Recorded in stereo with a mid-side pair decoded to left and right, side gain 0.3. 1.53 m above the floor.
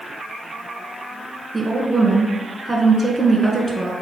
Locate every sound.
1.5 s a woman speaking: 30° right, 1.6 m